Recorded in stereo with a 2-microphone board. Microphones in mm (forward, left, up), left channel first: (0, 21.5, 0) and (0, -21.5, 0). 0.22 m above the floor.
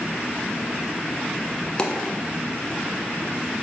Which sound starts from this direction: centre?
A dropped coin, at 1.8 s.